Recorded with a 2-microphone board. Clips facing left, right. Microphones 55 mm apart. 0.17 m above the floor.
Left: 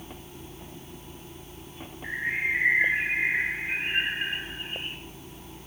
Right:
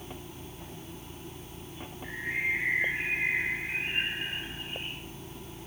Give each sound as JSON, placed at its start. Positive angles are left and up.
{"t": 2.0, "sound": "a bird", "side_deg": 45, "distance_m": 1.3}